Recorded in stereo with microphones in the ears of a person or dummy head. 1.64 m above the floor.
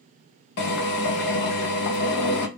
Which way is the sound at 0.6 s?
65° left (ahead or behind).